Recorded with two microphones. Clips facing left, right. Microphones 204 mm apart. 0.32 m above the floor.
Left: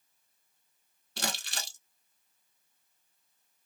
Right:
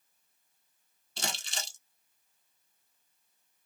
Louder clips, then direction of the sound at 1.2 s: Left 2 dB; 65° left (ahead or behind).